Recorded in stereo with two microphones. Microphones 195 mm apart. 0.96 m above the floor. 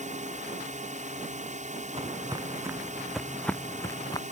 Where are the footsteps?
30° right (ahead or behind); by 4.2 s 20° left (ahead or behind).